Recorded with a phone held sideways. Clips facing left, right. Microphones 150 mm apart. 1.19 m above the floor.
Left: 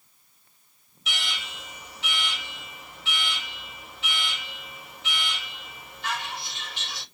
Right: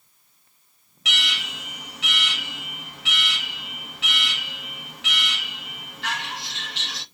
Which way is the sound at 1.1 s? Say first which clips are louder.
Right 3 dB; 75° right (ahead or behind).